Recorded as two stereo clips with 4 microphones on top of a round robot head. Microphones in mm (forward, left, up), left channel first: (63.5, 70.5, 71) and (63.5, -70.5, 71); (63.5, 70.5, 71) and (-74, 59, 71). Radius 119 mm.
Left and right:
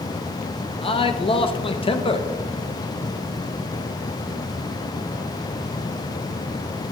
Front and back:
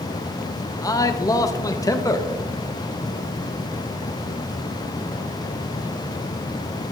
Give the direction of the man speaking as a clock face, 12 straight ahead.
10 o'clock.